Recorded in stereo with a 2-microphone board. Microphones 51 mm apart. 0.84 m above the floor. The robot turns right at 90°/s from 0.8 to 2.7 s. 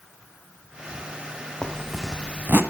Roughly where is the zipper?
Behind left.